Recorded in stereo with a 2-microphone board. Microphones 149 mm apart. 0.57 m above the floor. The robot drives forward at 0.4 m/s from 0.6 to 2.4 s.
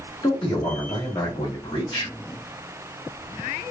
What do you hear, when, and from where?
0.2 s a man speaking: 35° left (ahead or behind), 1.3 m; by 2.1 s 30° left (ahead or behind), 1.5 m